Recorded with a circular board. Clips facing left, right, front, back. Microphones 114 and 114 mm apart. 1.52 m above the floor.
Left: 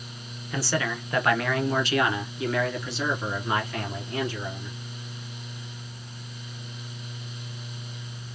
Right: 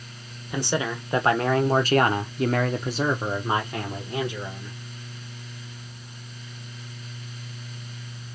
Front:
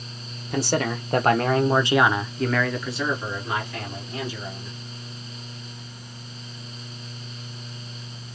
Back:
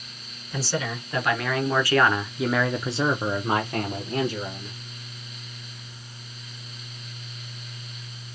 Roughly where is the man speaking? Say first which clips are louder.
Right 2 dB, front 5 dB; ahead.